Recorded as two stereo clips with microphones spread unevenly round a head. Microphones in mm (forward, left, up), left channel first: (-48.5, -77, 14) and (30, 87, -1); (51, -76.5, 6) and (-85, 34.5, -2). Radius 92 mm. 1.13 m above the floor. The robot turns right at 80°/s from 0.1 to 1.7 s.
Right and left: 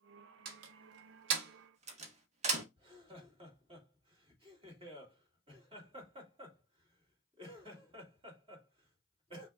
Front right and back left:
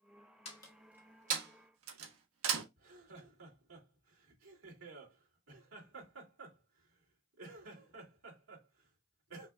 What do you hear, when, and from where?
0.5 s a door slam: 20° left, 1.2 m; by 2.6 s 120° left, 1.2 m
2.8 s laughter: 125° left, 2.5 m